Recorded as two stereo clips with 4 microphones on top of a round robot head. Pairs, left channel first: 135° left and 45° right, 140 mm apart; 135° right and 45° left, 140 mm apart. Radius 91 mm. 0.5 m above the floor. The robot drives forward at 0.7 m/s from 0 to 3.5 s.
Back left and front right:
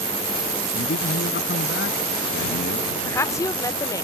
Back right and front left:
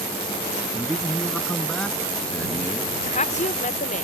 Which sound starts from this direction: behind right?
A woman speaking, at 3.0 s.